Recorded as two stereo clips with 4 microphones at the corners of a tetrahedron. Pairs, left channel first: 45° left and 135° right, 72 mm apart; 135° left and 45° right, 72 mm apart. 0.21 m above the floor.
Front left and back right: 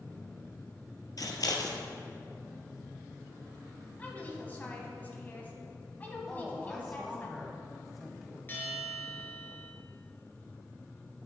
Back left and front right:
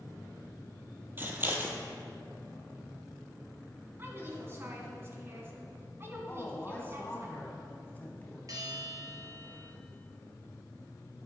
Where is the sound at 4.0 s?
10° right, 1.5 m.